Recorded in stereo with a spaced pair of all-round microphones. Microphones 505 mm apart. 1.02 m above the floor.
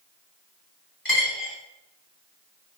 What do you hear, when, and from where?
1.1 s a dropped coin: 40° left (ahead or behind), 0.9 m